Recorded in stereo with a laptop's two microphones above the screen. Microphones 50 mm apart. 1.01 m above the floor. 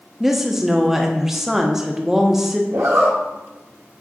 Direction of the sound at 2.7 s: 80° right.